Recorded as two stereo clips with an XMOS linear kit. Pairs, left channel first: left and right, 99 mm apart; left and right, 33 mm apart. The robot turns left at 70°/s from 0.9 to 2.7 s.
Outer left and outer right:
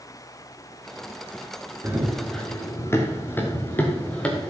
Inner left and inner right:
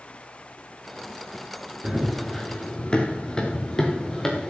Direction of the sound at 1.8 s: 25° right (ahead or behind).